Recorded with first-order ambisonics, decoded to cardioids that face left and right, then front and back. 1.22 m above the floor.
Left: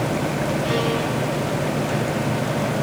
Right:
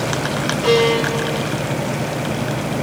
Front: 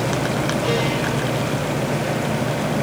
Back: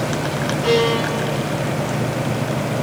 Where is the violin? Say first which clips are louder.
Right 11 dB, back 8 dB; 110° right, 3 m.